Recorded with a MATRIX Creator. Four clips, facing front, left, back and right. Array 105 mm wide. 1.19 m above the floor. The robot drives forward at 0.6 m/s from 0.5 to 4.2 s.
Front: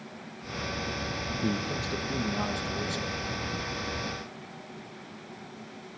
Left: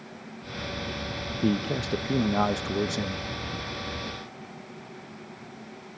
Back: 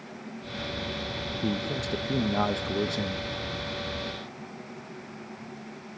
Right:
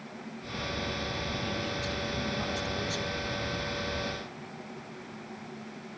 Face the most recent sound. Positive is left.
turn(degrees=145)